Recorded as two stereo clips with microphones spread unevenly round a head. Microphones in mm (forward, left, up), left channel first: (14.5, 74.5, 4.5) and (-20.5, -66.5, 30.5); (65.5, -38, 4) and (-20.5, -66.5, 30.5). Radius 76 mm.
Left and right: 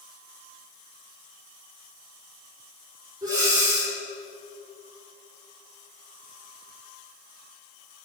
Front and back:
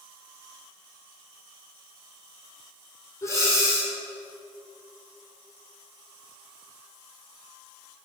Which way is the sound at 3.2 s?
40° right.